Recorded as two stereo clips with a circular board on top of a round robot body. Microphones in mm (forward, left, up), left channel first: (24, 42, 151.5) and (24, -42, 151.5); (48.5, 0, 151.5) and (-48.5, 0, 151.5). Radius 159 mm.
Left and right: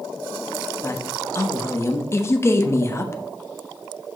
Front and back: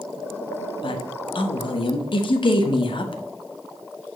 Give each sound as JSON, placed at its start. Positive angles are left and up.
{"t": 0.8, "sound": "a woman speaking", "azimuth_deg": 30, "distance_m": 1.1}